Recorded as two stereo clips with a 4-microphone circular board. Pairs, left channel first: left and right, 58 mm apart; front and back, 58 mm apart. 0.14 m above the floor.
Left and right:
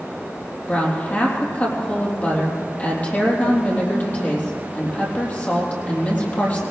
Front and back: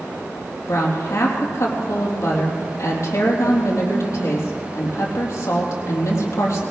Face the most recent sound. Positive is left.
turn(degrees=25)